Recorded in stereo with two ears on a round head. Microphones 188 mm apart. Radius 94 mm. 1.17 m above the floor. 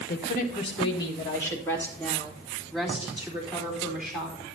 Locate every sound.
0.1 s a woman speaking: 45° left (ahead or behind), 1.0 m; by 4.4 s centre (ahead or behind), 4.5 m